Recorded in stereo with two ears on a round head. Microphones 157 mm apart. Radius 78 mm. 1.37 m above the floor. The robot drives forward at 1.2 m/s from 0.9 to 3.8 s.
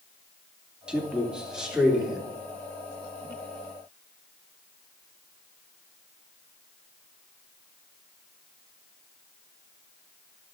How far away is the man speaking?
About 2 m.